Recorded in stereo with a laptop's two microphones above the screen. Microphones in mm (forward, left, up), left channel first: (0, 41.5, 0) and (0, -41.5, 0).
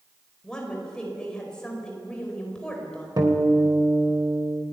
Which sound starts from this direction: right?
A guitar, at 3.2 s.